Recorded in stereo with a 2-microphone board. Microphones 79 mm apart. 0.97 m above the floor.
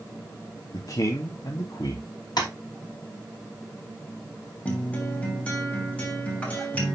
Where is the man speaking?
50° left (ahead or behind), 1.4 m.